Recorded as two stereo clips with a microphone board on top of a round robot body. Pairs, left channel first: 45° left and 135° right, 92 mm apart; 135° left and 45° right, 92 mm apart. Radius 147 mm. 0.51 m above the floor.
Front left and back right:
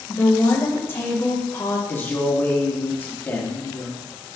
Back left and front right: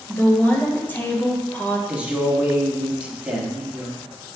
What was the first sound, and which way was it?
A woman speaking, 80° left.